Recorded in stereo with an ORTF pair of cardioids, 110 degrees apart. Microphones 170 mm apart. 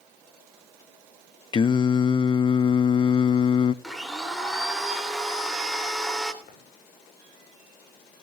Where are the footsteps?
60° left, 5.5 m.